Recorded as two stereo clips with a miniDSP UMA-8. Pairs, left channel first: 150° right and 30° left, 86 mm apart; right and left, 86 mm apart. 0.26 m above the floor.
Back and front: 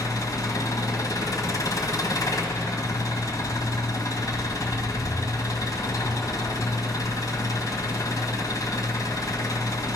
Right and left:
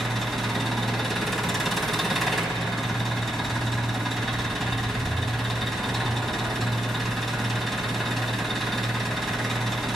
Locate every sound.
0.0 s an engine running: straight behind, 1.8 m